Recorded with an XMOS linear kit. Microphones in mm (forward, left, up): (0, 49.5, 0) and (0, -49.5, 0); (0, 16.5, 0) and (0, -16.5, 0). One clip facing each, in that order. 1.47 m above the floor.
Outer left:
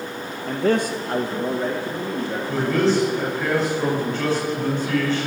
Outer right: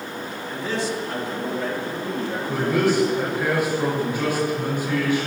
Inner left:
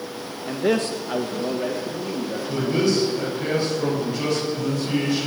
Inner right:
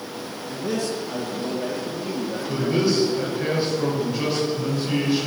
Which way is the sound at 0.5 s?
65° left (ahead or behind).